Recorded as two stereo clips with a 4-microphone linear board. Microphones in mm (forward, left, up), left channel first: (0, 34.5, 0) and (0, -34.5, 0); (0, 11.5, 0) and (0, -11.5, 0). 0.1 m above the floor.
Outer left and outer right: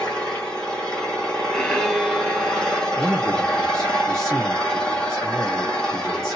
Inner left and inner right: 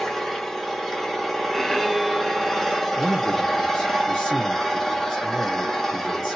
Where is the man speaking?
10° left (ahead or behind), 1.6 m.